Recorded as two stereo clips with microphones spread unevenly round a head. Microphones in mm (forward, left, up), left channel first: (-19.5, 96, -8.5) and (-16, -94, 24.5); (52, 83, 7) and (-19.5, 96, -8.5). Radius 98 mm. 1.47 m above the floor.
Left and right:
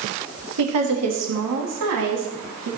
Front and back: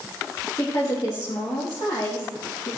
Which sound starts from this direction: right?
A woman speaking, at 0.6 s.